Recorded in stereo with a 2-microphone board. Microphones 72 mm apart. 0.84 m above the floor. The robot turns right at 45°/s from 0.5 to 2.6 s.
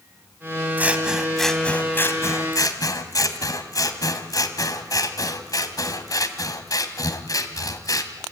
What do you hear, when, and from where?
0.8 s scissors: 25° right, 1.7 m; by 8.1 s 60° left, 1.7 m